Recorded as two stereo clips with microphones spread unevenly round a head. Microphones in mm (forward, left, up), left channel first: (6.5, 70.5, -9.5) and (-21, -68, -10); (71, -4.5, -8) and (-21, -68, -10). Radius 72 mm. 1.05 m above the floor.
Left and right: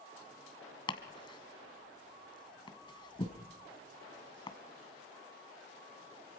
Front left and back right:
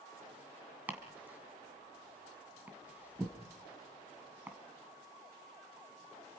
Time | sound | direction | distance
0.9 | chopping | 135° left | 2 m